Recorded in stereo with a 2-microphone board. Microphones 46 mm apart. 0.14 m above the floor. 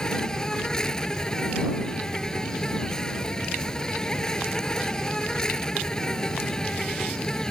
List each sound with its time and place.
0.0 s an insect: 20° left (ahead or behind)